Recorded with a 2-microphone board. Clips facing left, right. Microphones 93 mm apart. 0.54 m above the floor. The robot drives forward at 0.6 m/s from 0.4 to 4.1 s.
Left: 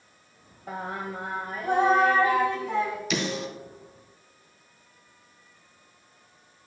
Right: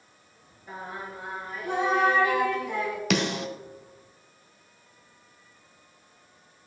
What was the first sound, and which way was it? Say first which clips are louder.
Singing: left 4 dB; 85° left.